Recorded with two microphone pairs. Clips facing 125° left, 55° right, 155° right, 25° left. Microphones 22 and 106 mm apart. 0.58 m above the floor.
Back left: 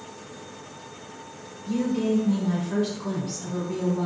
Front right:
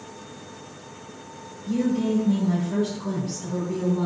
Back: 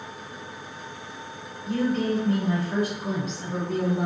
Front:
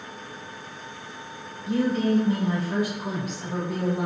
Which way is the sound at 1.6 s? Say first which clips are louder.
Front right 1 dB, front 2 dB; 85° left.